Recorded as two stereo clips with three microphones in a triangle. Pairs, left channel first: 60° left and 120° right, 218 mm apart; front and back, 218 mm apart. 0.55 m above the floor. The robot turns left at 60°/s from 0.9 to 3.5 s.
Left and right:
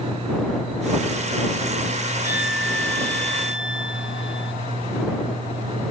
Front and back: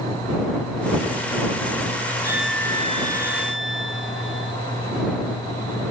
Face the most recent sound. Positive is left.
turn(degrees=30)